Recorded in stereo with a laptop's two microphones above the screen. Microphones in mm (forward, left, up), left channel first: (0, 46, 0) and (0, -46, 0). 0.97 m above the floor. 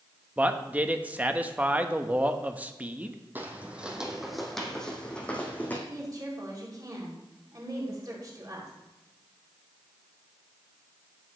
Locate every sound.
0.4 s a man speaking: 15° right (ahead or behind), 1.0 m
3.4 s footsteps: 20° right (ahead or behind), 1.8 m; by 5.8 s 20° left (ahead or behind), 3 m
5.9 s a woman speaking: 40° right (ahead or behind), 2.5 m